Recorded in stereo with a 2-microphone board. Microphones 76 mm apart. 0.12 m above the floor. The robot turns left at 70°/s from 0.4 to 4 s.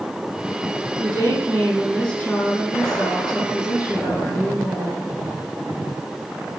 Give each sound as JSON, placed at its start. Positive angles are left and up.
{"t": 1.0, "sound": "a woman speaking", "azimuth_deg": -110, "distance_m": 5.5}